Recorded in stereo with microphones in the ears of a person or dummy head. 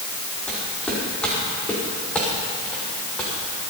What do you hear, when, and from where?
0.5 s footsteps: 5° left (ahead or behind), 4.5 m